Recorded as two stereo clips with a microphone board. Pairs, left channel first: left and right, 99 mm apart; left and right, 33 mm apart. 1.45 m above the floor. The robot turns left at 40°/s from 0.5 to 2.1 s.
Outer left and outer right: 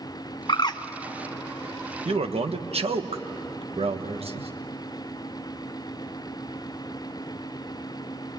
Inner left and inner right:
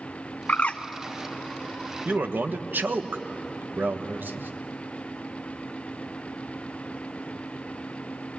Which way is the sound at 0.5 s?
50° left (ahead or behind).